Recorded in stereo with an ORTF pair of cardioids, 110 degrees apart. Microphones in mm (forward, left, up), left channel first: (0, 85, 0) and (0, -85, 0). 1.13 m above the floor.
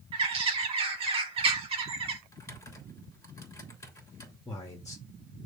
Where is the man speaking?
20° left, 2 m.